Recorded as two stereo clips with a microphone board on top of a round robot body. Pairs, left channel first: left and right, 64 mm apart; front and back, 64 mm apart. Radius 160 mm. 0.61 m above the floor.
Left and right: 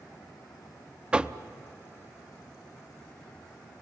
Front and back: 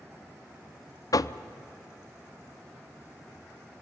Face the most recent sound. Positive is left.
turn(degrees=-15)